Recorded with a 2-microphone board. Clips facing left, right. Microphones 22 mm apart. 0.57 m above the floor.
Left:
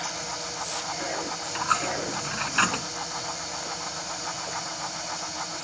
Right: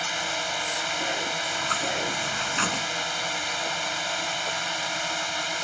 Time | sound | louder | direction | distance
0.0 | a drone | right 5 dB | 65° right (ahead or behind) | ?
1.5 | a dropped coin | even | 25° left (ahead or behind) | ?